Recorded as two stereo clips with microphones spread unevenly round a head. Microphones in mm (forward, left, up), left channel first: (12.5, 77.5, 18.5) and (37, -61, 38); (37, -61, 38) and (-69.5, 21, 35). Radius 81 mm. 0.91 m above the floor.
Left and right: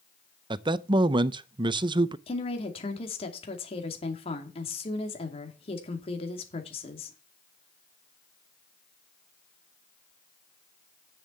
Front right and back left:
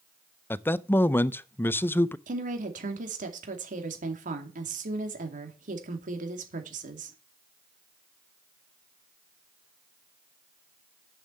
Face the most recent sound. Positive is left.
turn(degrees=145)